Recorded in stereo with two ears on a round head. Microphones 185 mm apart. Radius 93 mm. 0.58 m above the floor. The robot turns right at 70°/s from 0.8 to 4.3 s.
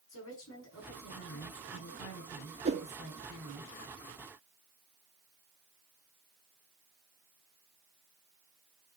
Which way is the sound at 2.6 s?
30° right (ahead or behind).